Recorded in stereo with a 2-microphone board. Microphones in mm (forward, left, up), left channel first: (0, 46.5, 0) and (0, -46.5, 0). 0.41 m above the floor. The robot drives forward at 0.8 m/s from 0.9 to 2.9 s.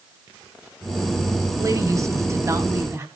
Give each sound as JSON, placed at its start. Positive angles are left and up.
{"t": 1.6, "sound": "a woman speaking", "side_deg": -35, "distance_m": 1.9}